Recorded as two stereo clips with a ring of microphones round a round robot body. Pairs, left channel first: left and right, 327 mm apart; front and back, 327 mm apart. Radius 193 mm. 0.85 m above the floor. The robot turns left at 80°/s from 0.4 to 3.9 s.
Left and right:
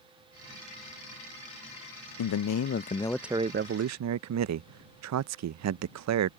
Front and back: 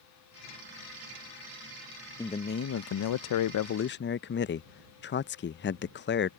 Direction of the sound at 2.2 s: 80° left.